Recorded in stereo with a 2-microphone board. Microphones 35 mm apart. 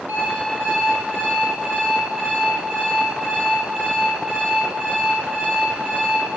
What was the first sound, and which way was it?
An alarm clock, 80° right.